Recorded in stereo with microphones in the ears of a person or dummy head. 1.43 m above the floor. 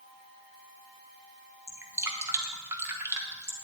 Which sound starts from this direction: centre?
Dripping, at 1.7 s.